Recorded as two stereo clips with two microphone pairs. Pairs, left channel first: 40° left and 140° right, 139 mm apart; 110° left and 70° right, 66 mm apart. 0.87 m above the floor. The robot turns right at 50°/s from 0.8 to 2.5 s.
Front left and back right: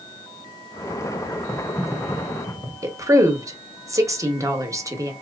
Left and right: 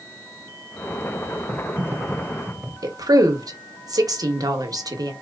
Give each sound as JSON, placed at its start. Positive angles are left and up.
{"t": 1.5, "sound": "typing on a keyboard", "azimuth_deg": -50, "distance_m": 0.7}
{"t": 2.8, "sound": "a woman speaking", "azimuth_deg": -75, "distance_m": 1.0}